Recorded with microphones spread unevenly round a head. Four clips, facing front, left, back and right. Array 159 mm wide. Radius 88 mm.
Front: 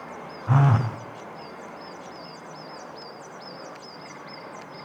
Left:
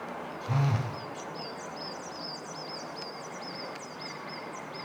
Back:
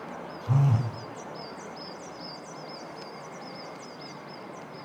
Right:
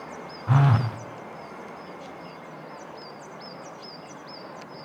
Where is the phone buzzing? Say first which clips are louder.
Right 8 dB, front 5 dB; 20° right, 0.6 m.